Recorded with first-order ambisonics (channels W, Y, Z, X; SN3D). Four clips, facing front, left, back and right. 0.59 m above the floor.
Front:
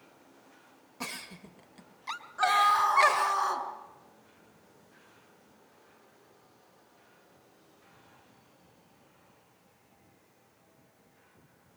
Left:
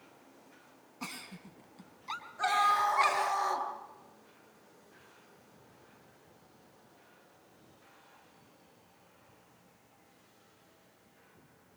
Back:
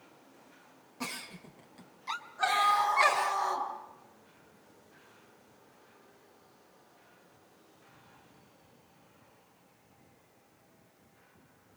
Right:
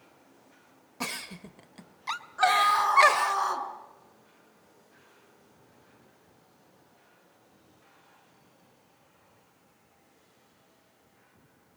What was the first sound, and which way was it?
A giggle, 80° right.